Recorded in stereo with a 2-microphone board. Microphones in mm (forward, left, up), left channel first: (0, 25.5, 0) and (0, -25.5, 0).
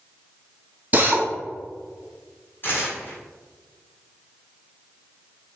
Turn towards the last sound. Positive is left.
turn(degrees=45)  # may be behind; listen again after turning